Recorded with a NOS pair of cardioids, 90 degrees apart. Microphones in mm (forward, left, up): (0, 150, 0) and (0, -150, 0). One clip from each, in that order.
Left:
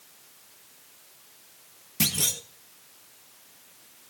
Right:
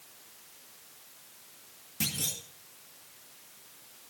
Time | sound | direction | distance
2.0 | a clunk | 50° left | 1.8 m